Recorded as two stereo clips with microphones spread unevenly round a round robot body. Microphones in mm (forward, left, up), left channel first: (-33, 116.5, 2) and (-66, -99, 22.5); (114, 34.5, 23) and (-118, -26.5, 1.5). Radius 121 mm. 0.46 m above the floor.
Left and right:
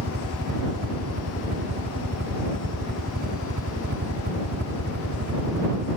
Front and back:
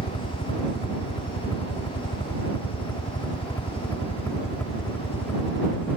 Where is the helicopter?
50° right; by 6.0 s 70° right.